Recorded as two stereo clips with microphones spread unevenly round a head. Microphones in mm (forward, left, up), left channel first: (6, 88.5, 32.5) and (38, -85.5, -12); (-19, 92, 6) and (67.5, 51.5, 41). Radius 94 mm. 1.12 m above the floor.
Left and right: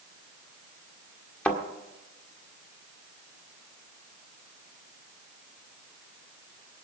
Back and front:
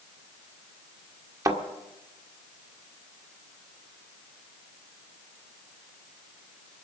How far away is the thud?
About 1.6 m.